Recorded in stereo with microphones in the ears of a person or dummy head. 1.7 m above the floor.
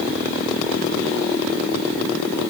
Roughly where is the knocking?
I don't hear knocking.